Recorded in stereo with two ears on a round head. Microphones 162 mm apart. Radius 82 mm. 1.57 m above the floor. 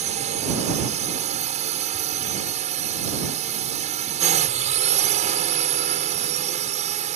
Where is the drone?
40° right (ahead or behind).